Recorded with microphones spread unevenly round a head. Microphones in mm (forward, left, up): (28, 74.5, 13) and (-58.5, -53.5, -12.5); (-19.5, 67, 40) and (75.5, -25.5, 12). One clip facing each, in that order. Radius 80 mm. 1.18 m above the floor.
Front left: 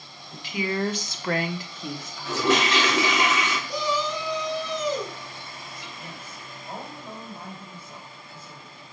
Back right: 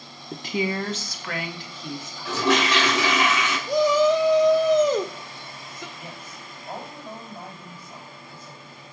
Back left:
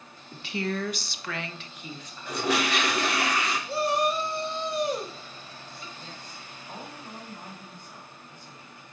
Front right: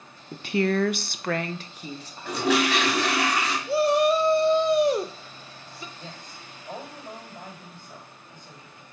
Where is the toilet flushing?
85° right, 2 m.